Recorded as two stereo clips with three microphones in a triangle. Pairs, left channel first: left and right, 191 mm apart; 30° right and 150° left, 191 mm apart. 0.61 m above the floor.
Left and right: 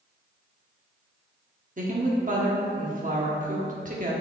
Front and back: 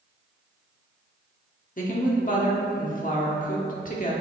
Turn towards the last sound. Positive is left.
turn(degrees=-60)